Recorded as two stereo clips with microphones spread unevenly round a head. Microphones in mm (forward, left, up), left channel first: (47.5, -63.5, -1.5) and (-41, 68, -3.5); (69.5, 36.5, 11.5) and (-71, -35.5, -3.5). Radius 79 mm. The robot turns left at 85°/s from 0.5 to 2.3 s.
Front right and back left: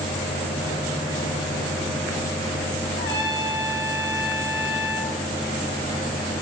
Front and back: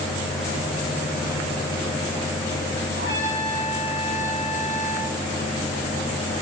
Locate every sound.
3.0 s a trumpet: 105° right, 4.5 m